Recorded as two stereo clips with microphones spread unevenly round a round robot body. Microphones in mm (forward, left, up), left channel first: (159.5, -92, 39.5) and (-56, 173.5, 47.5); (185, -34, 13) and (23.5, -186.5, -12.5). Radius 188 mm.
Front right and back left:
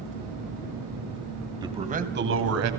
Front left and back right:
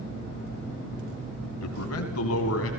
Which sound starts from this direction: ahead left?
A man speaking, at 1.6 s.